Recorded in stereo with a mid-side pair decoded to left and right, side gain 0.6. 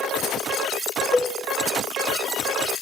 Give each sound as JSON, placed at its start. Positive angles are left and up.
{"t": 1.1, "sound": "a cowbell", "azimuth_deg": 10, "distance_m": 1.2}